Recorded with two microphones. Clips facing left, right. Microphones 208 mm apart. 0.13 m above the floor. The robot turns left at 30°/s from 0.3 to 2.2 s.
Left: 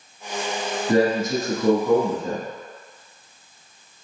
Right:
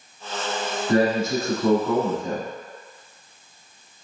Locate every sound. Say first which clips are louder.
0.9 s a man speaking: left 1 dB; 20° left (ahead or behind), 1.1 m; by 2.5 s 5° left (ahead or behind), 1.1 m